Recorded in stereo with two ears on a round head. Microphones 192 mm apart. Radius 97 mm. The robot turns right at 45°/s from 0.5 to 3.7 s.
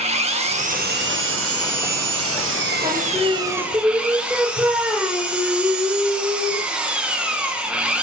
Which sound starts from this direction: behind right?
An engine running, at 0.0 s.